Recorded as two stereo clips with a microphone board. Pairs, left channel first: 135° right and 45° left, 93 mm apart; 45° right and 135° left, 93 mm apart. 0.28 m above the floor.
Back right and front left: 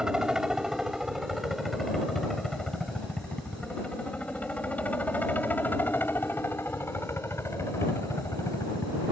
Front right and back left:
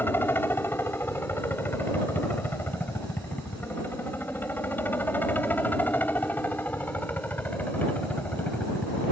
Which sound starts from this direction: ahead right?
A helicopter, at 0.0 s.